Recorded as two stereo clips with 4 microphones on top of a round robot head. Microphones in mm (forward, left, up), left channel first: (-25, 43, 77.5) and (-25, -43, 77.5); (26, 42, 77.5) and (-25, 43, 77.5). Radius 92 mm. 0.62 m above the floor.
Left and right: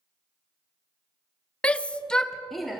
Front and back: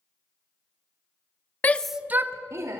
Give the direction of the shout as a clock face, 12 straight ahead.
11 o'clock.